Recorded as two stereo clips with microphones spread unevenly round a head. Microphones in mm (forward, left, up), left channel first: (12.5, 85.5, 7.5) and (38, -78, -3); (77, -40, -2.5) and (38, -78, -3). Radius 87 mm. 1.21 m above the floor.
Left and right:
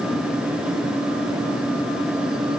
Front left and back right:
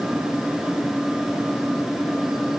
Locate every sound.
Only background noise.